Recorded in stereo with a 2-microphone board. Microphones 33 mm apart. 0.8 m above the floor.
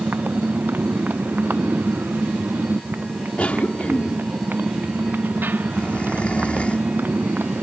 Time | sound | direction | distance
0.0 | a motorcycle | 80° right | ?
3.4 | a cough | 40° left (ahead or behind) | ?